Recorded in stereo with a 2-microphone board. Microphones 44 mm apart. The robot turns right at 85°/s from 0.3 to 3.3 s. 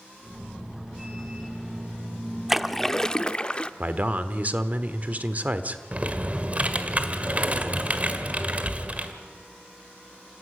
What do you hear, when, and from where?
2.5 s a splash: 15° right, 0.6 m; by 3.7 s 55° left, 0.6 m
3.8 s a man speaking: 40° right (ahead or behind), 1.2 m
5.9 s typing on a keyboard: 35° right (ahead or behind), 1.4 m